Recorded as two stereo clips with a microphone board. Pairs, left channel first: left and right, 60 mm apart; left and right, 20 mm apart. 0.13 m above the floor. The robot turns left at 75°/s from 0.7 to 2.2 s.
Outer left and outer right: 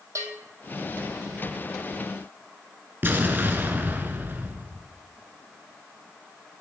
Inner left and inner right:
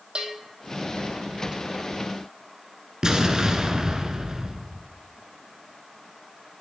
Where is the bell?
60° right (ahead or behind), 1.8 m.